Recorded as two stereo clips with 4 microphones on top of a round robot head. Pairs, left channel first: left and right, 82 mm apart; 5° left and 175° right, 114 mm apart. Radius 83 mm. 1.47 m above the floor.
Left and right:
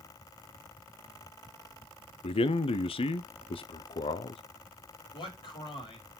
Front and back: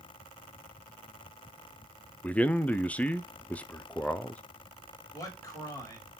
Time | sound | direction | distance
2.2 | a man speaking | 85° left | 0.6 m
5.1 | a man speaking | 65° left | 3.5 m